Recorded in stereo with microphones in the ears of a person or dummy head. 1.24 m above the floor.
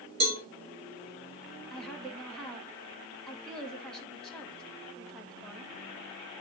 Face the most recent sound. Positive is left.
turn(degrees=5)  # may be behind; listen again after turning